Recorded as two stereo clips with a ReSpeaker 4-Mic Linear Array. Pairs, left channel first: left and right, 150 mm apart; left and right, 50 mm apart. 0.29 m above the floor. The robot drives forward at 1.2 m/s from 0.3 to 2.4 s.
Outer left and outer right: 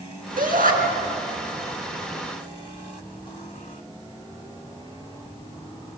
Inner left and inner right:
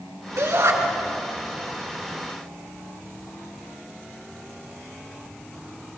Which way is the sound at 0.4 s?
70° right (ahead or behind).